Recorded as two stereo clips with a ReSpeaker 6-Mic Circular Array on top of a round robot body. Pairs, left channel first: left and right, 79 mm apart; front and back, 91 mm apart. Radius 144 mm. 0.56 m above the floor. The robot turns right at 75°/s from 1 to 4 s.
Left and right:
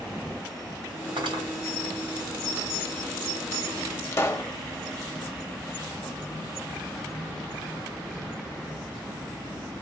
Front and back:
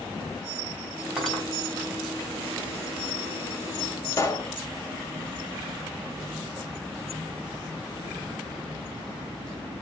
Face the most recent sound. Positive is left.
turn(degrees=45)